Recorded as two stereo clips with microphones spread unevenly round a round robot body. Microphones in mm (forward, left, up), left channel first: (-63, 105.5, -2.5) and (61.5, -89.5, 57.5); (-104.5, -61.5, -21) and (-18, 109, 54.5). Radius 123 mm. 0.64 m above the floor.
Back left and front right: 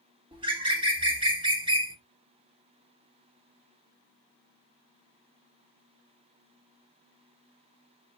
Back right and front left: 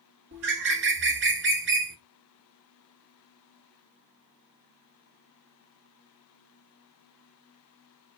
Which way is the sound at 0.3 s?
20° left.